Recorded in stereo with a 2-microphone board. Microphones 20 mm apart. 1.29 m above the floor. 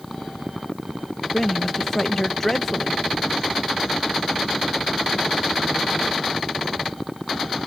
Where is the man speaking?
20° left (ahead or behind).